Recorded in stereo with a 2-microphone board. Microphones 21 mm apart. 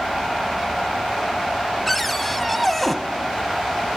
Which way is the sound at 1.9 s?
5° left (ahead or behind).